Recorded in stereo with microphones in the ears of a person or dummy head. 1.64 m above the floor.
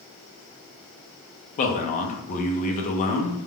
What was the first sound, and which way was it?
A man speaking, 40° left (ahead or behind).